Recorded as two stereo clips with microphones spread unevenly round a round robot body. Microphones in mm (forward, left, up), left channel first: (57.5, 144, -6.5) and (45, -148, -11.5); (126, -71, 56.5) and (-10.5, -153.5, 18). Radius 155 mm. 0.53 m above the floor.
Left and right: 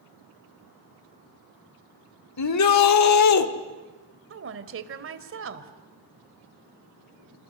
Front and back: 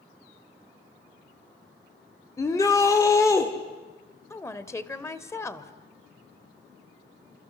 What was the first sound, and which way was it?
A shout, 115° left.